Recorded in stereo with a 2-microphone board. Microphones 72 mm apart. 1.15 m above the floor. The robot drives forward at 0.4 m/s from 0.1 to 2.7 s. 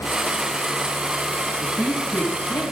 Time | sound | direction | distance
1.6 | a woman speaking | 45° left (ahead or behind) | 9 m